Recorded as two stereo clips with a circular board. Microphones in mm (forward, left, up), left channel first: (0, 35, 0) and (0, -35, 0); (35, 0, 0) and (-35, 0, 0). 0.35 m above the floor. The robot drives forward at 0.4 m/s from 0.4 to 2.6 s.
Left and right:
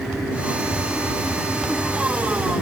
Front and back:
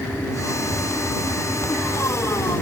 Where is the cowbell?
I don't hear a cowbell.